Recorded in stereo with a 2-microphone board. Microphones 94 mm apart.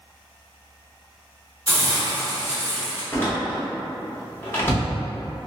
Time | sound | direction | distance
1.7 | a hiss | 35° right (ahead or behind) | 1.2 m
3.1 | a door slam | 20° left (ahead or behind) | 0.7 m